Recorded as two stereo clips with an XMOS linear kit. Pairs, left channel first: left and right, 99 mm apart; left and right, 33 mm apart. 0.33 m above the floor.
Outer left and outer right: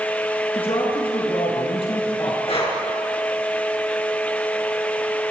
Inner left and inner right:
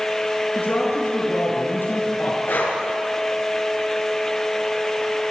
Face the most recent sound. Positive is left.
turn(degrees=75)  # may be behind; listen again after turning